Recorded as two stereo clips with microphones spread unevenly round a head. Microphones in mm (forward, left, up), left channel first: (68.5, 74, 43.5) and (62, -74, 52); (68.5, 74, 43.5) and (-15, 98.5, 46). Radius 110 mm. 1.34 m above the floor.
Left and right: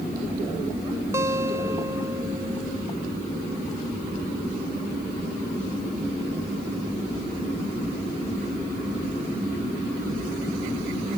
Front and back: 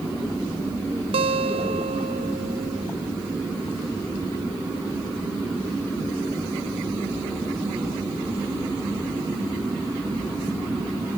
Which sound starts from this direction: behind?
A guitar, at 1.1 s.